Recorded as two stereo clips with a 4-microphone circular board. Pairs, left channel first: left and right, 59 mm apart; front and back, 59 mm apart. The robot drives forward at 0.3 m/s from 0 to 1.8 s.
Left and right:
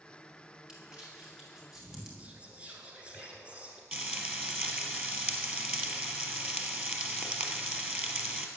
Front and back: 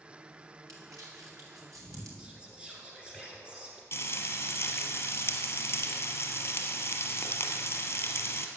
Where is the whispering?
130° right, 1.5 m.